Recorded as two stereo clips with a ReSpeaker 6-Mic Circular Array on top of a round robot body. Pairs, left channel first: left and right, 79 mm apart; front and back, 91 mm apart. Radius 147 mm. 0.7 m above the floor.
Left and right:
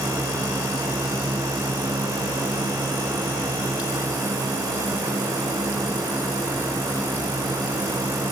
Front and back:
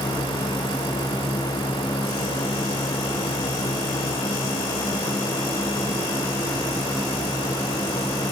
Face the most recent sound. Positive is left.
No sound to turn to.